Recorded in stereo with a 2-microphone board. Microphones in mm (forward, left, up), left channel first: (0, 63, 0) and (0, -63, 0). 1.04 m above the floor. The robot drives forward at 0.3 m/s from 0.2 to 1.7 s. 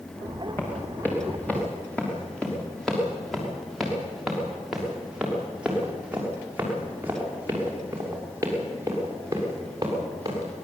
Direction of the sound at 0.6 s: 15° left (ahead or behind).